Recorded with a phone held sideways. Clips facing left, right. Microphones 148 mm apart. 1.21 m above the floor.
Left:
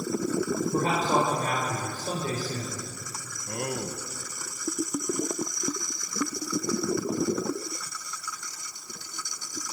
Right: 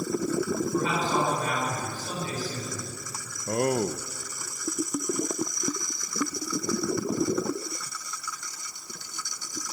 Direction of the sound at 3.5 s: 50° right (ahead or behind).